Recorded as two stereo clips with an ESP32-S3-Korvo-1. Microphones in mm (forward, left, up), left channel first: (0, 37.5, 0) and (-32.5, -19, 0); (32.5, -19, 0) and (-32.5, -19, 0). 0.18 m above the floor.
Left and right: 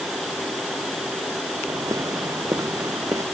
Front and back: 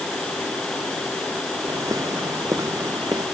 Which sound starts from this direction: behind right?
Footsteps, at 1.7 s.